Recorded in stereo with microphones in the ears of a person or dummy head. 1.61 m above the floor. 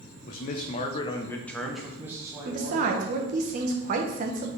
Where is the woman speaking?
50° right (ahead or behind), 1.0 m.